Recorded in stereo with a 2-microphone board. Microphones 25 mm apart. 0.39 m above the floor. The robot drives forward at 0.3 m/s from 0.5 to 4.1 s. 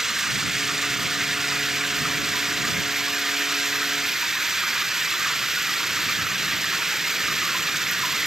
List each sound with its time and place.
0.0 s running water: 10° right (ahead or behind); by 8.3 s 15° right (ahead or behind)